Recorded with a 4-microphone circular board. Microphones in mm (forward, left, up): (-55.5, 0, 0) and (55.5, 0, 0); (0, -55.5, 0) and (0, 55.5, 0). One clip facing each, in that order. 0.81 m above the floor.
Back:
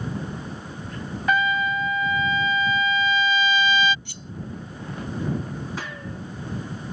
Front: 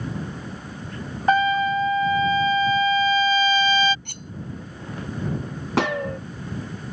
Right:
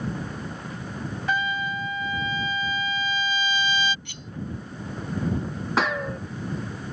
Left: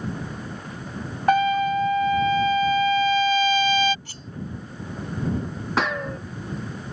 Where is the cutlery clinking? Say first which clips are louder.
Front 1 dB, even; 35° left.